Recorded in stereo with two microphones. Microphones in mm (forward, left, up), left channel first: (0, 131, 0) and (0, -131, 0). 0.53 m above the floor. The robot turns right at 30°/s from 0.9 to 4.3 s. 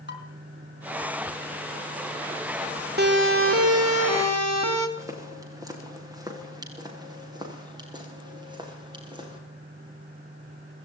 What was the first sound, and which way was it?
Dishes clattering, 40° left (ahead or behind).